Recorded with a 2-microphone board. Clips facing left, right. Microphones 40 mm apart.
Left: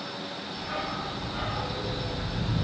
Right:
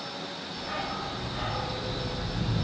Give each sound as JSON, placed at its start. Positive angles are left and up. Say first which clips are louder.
{"t": 0.6, "sound": "a dog barking", "louder": "even", "side_deg": 5, "distance_m": 3.0}